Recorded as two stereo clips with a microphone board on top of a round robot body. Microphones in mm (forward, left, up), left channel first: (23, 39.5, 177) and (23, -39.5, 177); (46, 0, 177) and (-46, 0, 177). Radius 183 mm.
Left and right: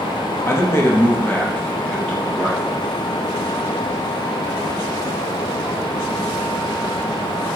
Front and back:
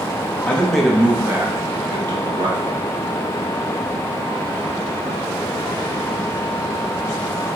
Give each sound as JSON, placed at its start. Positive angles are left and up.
{"t": 0.5, "sound": "a man speaking", "azimuth_deg": 65, "distance_m": 1.1}